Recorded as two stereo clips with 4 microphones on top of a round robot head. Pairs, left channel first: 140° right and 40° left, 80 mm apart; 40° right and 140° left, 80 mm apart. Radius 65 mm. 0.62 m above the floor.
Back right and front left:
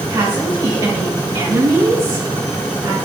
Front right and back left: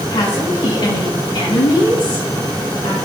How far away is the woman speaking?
About 5 m.